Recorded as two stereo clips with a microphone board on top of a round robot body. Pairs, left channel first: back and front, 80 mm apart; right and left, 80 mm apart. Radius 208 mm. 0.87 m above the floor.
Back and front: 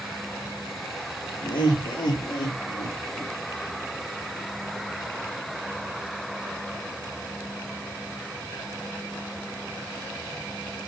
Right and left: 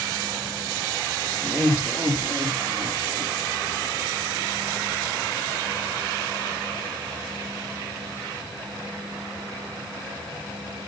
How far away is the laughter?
About 1.3 m.